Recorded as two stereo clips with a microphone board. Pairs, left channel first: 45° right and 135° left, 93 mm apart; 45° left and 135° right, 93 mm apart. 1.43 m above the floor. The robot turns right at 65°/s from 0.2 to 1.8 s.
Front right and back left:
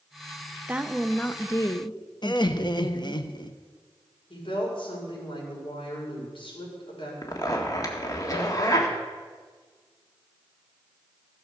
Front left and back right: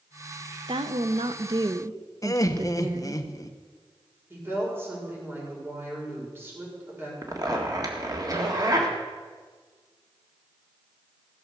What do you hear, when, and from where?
0.7 s a woman speaking: 155° right, 0.7 m; by 3.2 s 85° right, 0.7 m
2.2 s laughter: 5° right, 1.0 m
4.3 s a woman speaking: 70° right, 5 m
7.2 s a zipper: 90° right, 1.6 m